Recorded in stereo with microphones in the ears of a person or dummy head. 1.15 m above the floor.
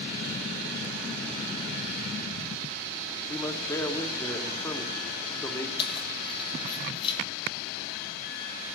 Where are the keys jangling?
25° left (ahead or behind), 1.7 m.